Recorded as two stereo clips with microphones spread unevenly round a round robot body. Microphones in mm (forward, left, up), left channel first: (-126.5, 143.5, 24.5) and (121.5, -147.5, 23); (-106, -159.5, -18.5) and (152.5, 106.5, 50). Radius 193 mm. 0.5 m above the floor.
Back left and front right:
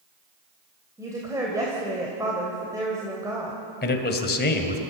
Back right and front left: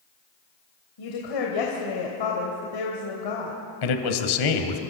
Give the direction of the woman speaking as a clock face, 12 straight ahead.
4 o'clock.